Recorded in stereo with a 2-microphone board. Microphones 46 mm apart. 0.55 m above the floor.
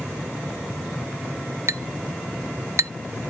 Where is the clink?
65° right (ahead or behind).